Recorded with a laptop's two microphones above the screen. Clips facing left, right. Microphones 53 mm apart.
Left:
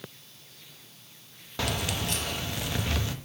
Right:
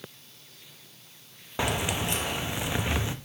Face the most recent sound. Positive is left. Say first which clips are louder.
# right 3 dB
turn(degrees=-20)  # may be behind; listen again after turning